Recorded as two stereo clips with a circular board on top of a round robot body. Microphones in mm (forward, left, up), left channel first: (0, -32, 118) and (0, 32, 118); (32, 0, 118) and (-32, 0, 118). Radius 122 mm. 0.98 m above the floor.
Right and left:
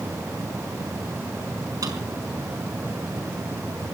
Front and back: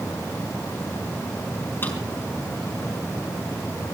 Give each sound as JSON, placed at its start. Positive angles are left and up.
{"t": 1.8, "sound": "a drawer", "azimuth_deg": 60, "distance_m": 5.5}